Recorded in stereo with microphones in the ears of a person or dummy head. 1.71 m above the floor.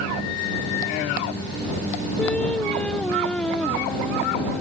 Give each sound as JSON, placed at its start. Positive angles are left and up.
{"t": 2.2, "sound": "singing", "side_deg": 10}